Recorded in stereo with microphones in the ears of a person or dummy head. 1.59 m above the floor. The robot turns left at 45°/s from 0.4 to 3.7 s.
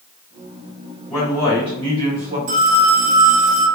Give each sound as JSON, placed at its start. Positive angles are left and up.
{"t": 1.1, "sound": "a man speaking", "azimuth_deg": 20, "distance_m": 1.1}
{"t": 2.5, "sound": "a phone ringing", "azimuth_deg": -90, "distance_m": 1.2}